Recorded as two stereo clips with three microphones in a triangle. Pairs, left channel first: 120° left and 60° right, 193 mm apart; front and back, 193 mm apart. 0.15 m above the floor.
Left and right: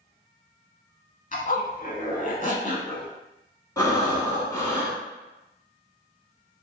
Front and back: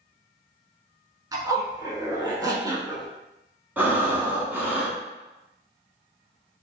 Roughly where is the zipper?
Behind left.